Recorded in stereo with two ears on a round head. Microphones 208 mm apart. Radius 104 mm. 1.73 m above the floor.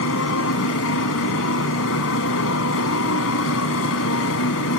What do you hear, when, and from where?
0.0 s a motorcycle: 65° left (ahead or behind)